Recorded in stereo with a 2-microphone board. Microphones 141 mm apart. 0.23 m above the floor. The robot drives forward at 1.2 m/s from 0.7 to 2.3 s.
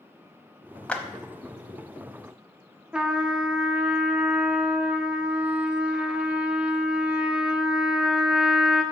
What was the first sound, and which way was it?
A clap, 10° left (ahead or behind).